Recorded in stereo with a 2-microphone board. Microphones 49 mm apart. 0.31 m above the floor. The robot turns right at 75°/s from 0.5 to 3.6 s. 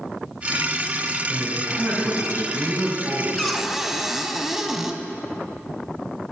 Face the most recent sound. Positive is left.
turn(degrees=-5)  # may be behind; listen again after turning